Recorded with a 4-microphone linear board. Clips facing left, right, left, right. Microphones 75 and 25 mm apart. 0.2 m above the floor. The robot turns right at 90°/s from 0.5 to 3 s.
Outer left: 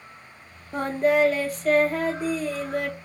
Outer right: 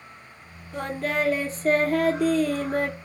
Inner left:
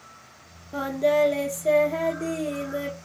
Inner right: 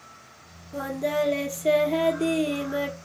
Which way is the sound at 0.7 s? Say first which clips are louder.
Outer left 6 dB, inner left 4 dB; 135° left.